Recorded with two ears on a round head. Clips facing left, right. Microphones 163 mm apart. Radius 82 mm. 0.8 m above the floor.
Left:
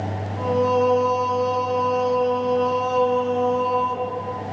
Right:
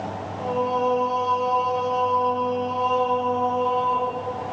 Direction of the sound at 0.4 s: 55° left (ahead or behind).